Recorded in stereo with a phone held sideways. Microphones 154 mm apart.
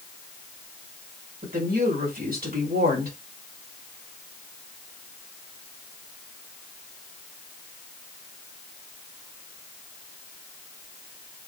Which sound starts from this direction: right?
A woman speaking, at 1.4 s.